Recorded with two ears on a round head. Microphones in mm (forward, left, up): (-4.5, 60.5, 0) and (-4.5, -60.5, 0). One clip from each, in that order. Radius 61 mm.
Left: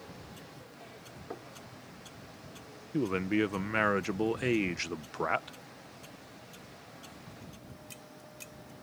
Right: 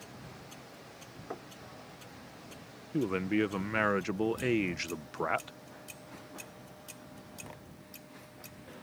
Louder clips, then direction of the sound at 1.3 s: Right 1 dB; 30° right (ahead or behind).